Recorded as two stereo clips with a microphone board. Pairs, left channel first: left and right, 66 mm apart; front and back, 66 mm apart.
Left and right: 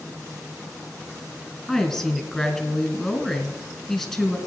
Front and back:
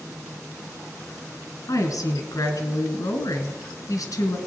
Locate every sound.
1.7 s a woman speaking: 5° left, 2.5 m